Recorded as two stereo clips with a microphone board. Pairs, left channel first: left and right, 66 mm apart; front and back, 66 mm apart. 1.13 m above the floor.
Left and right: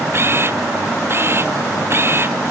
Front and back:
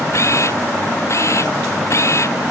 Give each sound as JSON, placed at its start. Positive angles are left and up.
{"t": 0.1, "sound": "a camera shutter", "azimuth_deg": -40}